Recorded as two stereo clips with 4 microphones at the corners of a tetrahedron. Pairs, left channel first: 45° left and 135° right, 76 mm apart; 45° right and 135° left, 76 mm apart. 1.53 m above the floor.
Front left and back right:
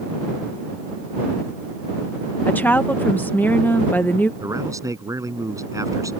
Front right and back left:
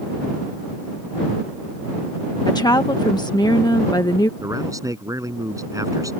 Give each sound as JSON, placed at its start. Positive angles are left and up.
{"t": 2.5, "sound": "a woman speaking", "azimuth_deg": -20}
{"t": 4.4, "sound": "a man speaking", "azimuth_deg": 180}